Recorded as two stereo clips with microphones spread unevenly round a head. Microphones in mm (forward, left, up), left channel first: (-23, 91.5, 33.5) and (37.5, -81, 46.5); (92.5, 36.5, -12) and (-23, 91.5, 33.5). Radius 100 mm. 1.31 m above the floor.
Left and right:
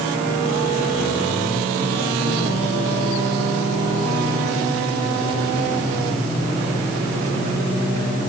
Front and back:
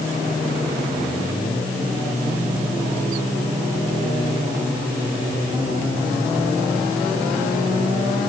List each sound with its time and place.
Only background noise.